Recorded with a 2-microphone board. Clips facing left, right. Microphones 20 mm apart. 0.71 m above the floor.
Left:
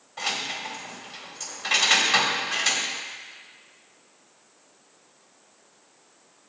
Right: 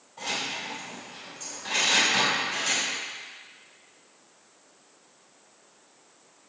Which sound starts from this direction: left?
Keys jangling, at 0.2 s.